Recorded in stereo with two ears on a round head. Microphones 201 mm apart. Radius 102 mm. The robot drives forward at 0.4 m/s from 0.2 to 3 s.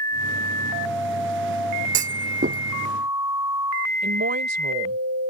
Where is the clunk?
35° right (ahead or behind).